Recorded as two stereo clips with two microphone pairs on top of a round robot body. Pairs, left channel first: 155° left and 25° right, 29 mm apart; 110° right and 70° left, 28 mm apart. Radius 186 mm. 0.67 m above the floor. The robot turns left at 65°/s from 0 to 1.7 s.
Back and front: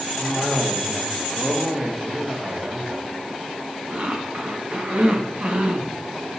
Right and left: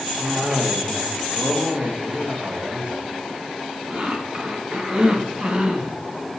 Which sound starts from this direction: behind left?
A cough, at 0.2 s.